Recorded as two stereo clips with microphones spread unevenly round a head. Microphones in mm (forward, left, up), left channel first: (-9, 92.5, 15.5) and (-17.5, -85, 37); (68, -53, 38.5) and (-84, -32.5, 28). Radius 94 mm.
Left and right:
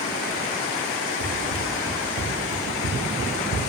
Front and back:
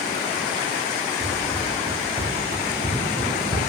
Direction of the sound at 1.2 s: 95° left.